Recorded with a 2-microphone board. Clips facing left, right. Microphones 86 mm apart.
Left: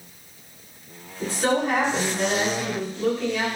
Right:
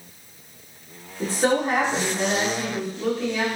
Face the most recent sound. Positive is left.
turn(degrees=0)  # may be behind; listen again after turning